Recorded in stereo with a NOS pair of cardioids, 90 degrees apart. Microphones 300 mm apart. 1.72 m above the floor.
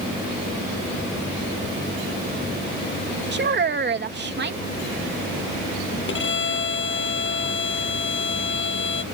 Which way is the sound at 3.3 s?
35° right.